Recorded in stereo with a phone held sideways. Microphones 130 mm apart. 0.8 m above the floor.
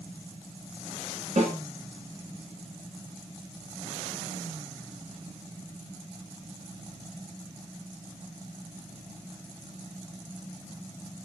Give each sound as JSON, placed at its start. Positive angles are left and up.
{"t": 1.4, "sound": "a snare drum", "side_deg": -60, "distance_m": 0.9}